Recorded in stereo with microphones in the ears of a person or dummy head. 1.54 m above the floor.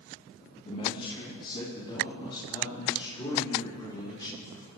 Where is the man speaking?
35° left (ahead or behind), 2 m; by 4.6 s 25° left (ahead or behind), 4.5 m.